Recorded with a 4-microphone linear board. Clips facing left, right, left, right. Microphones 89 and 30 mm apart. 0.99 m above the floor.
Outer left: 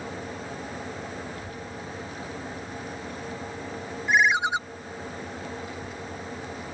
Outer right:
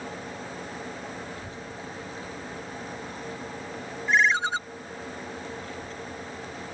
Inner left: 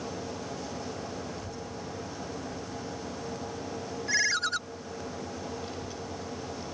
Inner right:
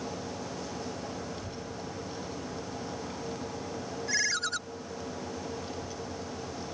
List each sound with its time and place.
1.4 s a child speaking: 25° right (ahead or behind); by 3.7 s 40° right (ahead or behind)
4.1 s a ringtone: 15° left (ahead or behind)
5.6 s a child speaking: 10° left (ahead or behind)